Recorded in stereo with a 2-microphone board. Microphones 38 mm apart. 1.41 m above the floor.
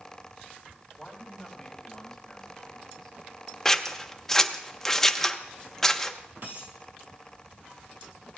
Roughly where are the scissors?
Centre.